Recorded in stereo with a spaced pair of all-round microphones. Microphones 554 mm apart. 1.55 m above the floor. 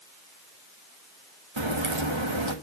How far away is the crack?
About 1.5 m.